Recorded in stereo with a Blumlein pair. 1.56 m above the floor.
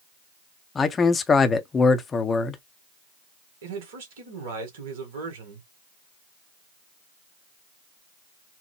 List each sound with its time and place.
0.8 s a man speaking: 20° left, 0.7 m
3.6 s a man speaking: 55° right, 1.7 m